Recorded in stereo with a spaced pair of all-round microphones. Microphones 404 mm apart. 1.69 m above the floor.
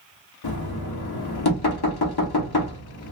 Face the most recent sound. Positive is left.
turn(degrees=70)  # may be behind; listen again after turning